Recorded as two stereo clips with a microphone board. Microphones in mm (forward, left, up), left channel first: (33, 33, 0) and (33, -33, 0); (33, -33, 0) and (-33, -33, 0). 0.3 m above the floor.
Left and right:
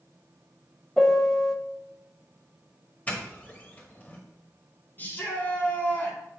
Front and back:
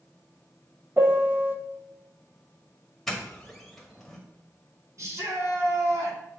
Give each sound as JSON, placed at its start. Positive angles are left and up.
{"t": 1.0, "sound": "a piano", "azimuth_deg": 165, "distance_m": 1.1}
{"t": 3.1, "sound": "a doorbell", "azimuth_deg": 80, "distance_m": 2.0}
{"t": 5.0, "sound": "a shout", "azimuth_deg": 150, "distance_m": 2.5}